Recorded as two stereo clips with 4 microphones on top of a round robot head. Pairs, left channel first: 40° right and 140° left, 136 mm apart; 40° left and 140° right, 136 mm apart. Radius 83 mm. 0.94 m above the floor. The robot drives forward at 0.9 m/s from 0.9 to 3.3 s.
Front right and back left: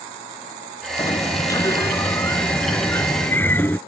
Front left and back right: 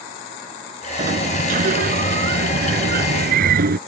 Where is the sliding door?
105° right; by 3.8 s 120° right.